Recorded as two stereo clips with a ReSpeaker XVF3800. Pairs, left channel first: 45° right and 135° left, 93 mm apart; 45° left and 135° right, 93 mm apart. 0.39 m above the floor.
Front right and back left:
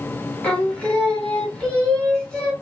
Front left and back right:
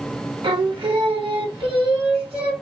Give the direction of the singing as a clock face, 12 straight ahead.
4 o'clock.